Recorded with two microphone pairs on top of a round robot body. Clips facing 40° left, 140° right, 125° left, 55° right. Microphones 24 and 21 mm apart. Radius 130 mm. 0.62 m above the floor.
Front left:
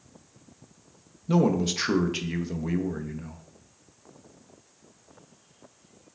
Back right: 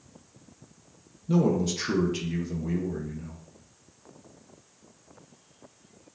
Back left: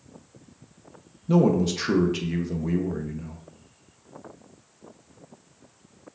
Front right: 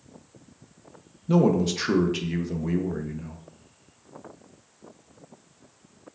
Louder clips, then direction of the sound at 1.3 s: Front left 1 dB, even; 45° left.